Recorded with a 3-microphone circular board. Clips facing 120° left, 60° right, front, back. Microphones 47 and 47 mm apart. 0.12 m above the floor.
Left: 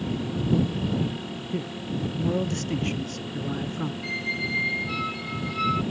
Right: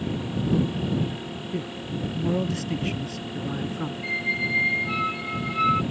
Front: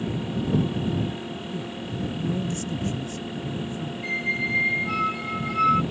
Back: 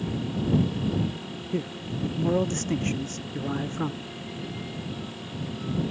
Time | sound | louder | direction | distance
1.5 | a man speaking | left 1 dB, back 5 dB | 150° right | ?
4.0 | a squeak | right 5 dB, front 11 dB | 10° left | ?